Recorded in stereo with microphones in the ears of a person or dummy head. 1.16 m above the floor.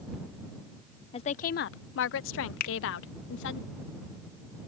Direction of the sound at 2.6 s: 45° left (ahead or behind).